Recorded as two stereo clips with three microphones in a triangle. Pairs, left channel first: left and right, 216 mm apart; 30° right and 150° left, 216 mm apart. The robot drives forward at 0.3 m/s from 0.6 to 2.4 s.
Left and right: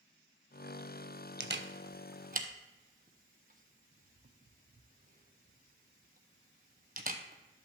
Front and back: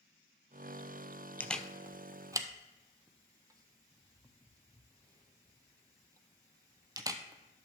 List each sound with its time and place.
1.4 s a camera shutter: 115° right, 0.6 m; by 7.7 s 135° right, 0.7 m